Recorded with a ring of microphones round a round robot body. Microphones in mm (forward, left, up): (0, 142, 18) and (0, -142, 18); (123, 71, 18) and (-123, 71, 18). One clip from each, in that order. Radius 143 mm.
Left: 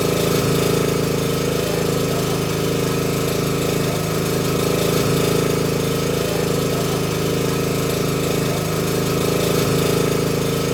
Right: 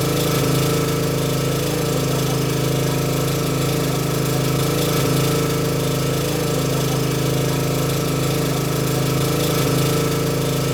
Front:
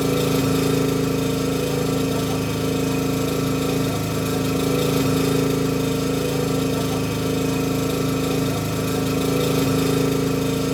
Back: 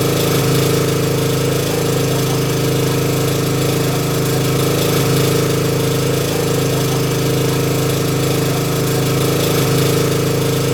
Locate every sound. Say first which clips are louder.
0.0 s an engine running: left 1 dB, back 5 dB; 155° right, 1.0 m